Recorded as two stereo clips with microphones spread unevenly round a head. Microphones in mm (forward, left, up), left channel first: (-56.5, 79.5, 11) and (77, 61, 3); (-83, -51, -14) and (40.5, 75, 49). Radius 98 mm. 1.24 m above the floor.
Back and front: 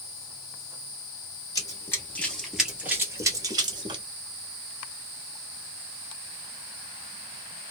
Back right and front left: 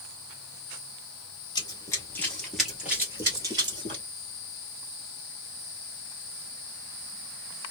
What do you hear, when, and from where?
1.6 s running footsteps: 140° left, 1.4 m; by 4.0 s 30° left, 1.7 m